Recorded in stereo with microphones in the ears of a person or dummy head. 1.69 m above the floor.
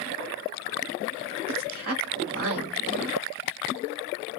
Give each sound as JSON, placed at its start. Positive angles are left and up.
{"t": 1.5, "sound": "a woman speaking", "side_deg": -75, "distance_m": 1.4}